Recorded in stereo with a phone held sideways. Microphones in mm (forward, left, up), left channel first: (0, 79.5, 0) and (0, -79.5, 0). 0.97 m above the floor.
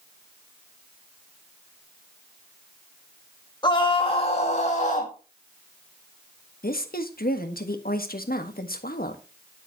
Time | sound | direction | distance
3.6 | a scream | 30° left (ahead or behind) | 2 m
6.6 | a woman speaking | 70° left (ahead or behind) | 1.5 m